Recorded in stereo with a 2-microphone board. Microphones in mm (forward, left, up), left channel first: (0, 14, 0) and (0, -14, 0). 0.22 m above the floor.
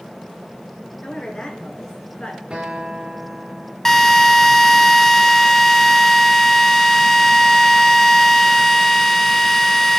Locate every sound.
1.0 s a woman speaking: 35° left (ahead or behind), 4 m; by 2.4 s 45° left (ahead or behind), 3.5 m
2.5 s a guitar: 35° right (ahead or behind), 5 m
3.9 s a drill: 15° left (ahead or behind), 1.0 m